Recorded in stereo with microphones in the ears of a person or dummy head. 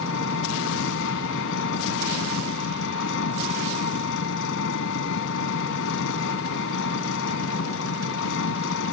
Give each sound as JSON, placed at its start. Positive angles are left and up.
{"t": 0.0, "sound": "an engine running", "side_deg": 75}